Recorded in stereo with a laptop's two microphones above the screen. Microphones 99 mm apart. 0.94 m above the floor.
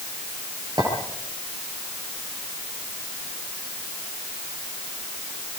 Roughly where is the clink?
Right.